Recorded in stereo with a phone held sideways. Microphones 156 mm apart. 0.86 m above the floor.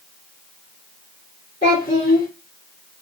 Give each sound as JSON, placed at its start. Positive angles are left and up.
{"t": 1.6, "sound": "a child speaking", "side_deg": 80, "distance_m": 1.6}